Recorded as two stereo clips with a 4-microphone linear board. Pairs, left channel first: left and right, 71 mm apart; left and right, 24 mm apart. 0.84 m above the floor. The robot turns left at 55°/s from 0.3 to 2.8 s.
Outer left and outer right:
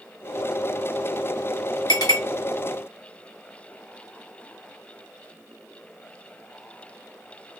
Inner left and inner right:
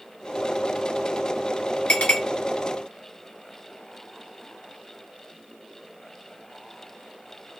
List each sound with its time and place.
1.9 s a clink: 75° left (ahead or behind), 1.2 m; by 2.2 s 60° left (ahead or behind), 1.2 m